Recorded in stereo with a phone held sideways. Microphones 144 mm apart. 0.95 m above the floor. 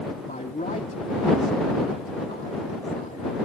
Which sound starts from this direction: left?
A man speaking, at 0.2 s.